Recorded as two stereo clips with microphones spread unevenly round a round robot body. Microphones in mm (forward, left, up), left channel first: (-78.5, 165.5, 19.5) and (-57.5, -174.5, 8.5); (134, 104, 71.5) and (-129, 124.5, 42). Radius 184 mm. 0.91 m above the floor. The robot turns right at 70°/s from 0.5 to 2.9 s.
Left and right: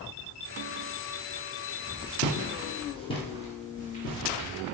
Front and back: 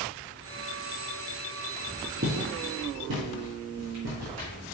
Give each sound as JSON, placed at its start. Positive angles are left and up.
{"t": 2.2, "sound": "footsteps", "azimuth_deg": 125, "distance_m": 1.2}